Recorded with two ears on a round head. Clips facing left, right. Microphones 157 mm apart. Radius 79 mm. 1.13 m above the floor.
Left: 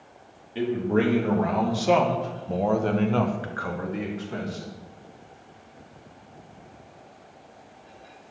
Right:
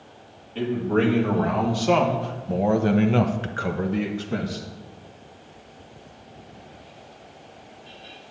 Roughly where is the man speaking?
Centre.